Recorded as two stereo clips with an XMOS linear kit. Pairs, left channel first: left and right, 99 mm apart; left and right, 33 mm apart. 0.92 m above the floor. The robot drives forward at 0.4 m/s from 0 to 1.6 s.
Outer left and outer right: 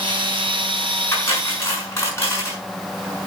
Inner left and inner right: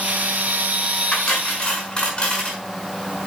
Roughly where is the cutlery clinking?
Left.